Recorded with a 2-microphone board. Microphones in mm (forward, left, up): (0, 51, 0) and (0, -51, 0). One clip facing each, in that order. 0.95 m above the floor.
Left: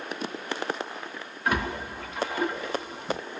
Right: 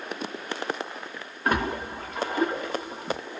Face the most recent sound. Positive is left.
turn(degrees=-40)  # may be behind; listen again after turning